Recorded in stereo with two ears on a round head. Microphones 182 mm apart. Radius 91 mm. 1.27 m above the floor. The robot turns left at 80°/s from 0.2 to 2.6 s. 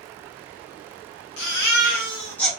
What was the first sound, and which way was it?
A baby crying, 90° left.